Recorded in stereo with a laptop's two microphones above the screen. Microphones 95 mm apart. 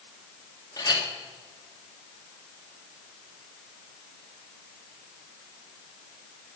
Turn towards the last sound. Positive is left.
turn(degrees=40)  # may be behind; listen again after turning